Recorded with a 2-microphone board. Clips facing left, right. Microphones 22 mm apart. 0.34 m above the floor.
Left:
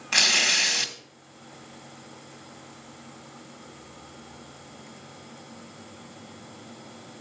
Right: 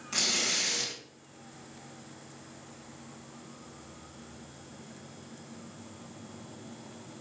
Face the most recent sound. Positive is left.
turn(degrees=45)  # may be behind; listen again after turning